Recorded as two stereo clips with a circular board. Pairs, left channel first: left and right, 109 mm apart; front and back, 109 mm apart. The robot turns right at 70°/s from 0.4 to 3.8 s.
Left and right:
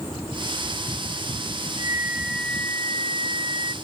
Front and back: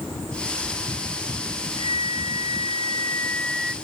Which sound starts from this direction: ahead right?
A flute, at 1.8 s.